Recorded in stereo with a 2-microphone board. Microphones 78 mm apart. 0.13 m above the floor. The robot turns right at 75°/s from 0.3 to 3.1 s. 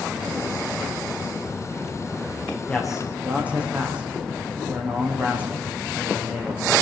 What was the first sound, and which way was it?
A man speaking, 165° left.